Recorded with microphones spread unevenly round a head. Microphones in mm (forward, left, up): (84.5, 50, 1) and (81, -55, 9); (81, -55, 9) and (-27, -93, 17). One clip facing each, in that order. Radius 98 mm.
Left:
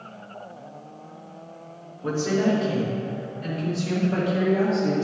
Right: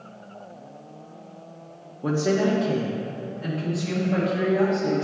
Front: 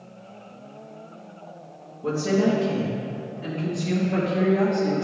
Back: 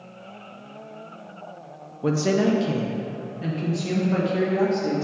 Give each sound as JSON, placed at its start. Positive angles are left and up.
{"t": 2.0, "sound": "a woman speaking", "azimuth_deg": -145, "distance_m": 0.8}